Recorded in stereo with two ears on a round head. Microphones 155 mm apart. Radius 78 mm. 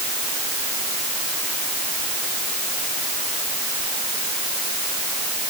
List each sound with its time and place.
Only background noise.